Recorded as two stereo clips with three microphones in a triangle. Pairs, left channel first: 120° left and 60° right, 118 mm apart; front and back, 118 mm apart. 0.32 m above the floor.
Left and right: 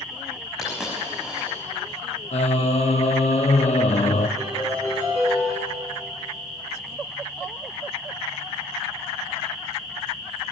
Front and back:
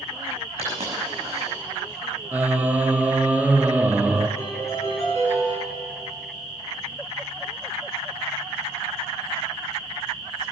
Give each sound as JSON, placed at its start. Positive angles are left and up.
{"t": 0.6, "sound": "a dropped coin", "azimuth_deg": -145, "distance_m": 6.0}
{"t": 2.3, "sound": "singing", "azimuth_deg": 105, "distance_m": 0.8}
{"t": 4.4, "sound": "a piano", "azimuth_deg": -65, "distance_m": 5.5}